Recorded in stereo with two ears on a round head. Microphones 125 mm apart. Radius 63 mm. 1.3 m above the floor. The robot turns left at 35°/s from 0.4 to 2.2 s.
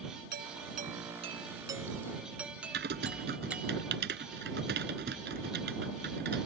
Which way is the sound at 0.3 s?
110° right.